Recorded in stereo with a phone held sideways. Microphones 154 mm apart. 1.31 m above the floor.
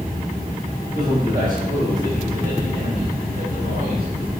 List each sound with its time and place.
0.9 s a man speaking: 65° right (ahead or behind), 4.5 m; by 4.3 s 75° right (ahead or behind), 6 m